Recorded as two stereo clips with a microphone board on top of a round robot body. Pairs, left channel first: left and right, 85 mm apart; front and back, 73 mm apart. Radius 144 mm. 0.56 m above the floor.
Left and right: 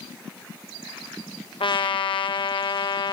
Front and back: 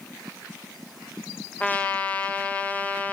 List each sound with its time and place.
1.6 s a trumpet: 70° left, 1.3 m